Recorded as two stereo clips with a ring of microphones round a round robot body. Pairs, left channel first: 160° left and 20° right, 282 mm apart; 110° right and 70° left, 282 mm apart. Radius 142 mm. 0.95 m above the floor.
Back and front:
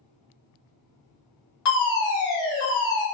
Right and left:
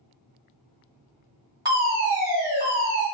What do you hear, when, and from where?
1.6 s a fire alarm: 145° left, 2.0 m